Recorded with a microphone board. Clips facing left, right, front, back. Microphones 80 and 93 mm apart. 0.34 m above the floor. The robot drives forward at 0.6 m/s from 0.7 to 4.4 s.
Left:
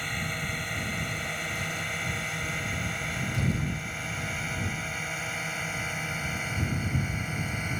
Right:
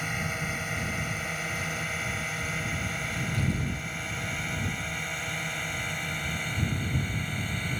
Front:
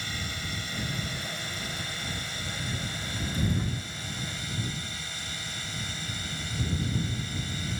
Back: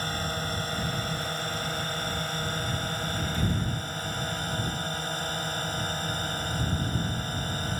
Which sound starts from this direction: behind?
A drone, at 0.0 s.